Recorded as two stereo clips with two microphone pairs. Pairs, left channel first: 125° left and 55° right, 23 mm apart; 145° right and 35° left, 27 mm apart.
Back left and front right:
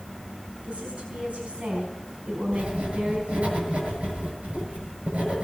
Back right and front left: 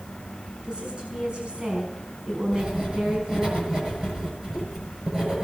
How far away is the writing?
About 7.5 m.